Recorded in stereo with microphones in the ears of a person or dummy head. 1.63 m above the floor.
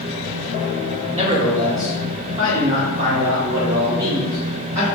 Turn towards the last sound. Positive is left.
turn(degrees=-35)  # may be behind; listen again after turning